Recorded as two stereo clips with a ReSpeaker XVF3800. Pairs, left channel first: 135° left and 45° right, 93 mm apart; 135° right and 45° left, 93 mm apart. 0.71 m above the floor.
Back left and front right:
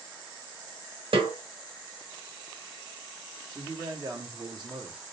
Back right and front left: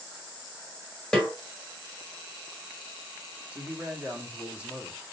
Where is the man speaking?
30° right, 1.4 m.